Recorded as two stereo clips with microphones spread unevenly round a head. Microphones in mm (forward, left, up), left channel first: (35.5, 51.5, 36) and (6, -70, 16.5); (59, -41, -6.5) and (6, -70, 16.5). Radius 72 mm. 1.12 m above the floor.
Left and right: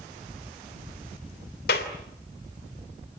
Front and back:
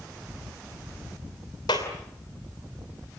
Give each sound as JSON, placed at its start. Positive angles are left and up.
{"t": 1.7, "sound": "a clap", "azimuth_deg": 80, "distance_m": 3.0}